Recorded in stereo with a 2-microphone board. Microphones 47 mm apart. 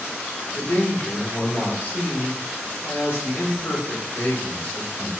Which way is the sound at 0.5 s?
40° left (ahead or behind).